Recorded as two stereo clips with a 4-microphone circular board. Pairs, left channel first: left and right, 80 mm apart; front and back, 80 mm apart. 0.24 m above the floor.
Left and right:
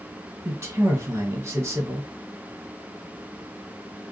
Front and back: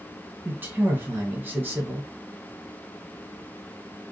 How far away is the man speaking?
About 1.6 m.